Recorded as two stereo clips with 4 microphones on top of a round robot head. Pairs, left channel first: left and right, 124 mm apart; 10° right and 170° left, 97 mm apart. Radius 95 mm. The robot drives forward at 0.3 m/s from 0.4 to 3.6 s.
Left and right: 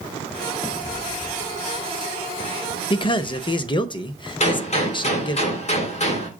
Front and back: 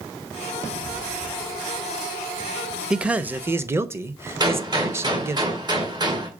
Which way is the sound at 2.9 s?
90° left.